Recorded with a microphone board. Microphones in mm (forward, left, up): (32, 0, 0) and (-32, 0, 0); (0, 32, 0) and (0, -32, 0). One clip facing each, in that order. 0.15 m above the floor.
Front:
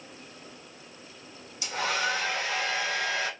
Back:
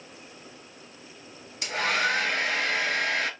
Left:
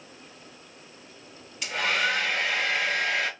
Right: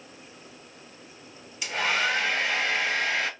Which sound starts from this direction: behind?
A hair dryer, at 1.6 s.